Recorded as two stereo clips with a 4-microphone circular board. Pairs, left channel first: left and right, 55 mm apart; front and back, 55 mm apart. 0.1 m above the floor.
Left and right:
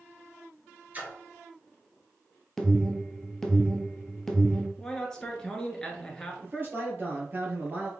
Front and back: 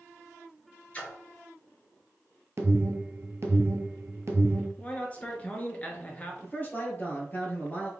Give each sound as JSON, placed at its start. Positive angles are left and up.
{"t": 0.9, "sound": "a splash", "azimuth_deg": -50, "distance_m": 1.7}
{"t": 2.6, "sound": "an alarm", "azimuth_deg": 175, "distance_m": 1.2}
{"t": 4.8, "sound": "a man speaking", "azimuth_deg": 25, "distance_m": 1.4}
{"t": 6.4, "sound": "a man speaking", "azimuth_deg": -50, "distance_m": 1.9}